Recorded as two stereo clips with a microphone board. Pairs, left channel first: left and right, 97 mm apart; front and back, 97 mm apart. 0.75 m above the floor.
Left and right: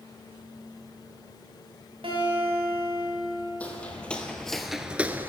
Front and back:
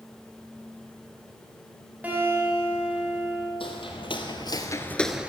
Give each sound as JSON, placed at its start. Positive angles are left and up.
{"t": 2.0, "sound": "a guitar", "azimuth_deg": -105, "distance_m": 3.5}
{"t": 3.6, "sound": "footsteps", "azimuth_deg": 15, "distance_m": 1.8}